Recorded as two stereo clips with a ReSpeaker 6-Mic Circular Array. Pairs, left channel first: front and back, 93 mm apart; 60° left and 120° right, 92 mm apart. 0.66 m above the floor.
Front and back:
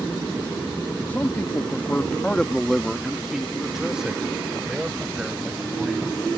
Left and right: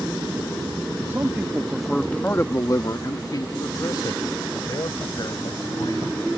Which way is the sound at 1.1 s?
65° right.